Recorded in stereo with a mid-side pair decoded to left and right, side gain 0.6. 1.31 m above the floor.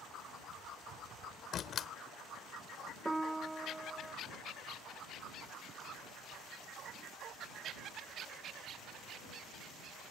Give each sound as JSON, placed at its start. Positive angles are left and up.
{"t": 1.5, "sound": "a door slam", "azimuth_deg": 45}
{"t": 3.0, "sound": "a piano", "azimuth_deg": -10}